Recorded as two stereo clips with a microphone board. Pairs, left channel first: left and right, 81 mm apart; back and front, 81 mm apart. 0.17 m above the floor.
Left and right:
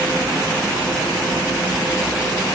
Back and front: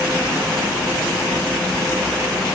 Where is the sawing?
I don't hear sawing.